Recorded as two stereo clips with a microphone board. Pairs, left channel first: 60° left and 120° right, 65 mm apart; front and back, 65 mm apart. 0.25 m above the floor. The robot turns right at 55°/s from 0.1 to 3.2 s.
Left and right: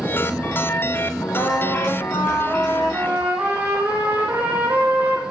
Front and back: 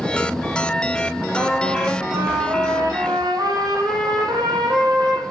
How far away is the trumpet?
About 5.5 m.